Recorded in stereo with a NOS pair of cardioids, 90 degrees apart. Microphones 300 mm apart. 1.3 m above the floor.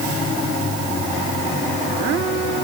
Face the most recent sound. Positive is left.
No sound to turn to.